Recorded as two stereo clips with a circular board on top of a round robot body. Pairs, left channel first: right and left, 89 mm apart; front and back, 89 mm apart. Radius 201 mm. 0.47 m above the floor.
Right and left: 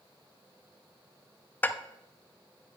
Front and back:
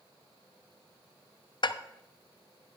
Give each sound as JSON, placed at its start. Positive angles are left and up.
{"t": 1.6, "sound": "dishes clattering", "azimuth_deg": -20, "distance_m": 0.5}